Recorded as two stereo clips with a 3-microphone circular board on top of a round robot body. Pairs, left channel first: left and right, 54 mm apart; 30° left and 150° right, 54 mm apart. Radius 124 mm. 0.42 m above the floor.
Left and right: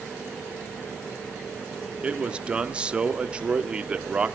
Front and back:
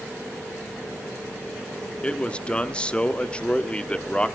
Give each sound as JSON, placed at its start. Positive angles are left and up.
{"t": 2.0, "sound": "a man speaking", "azimuth_deg": -30, "distance_m": 1.2}